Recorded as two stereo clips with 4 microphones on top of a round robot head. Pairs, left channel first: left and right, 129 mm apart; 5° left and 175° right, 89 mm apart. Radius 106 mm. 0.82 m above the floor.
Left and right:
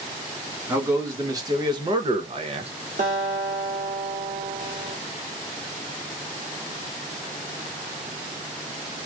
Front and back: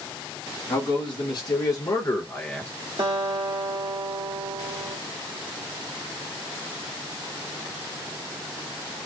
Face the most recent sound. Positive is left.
turn(degrees=-130)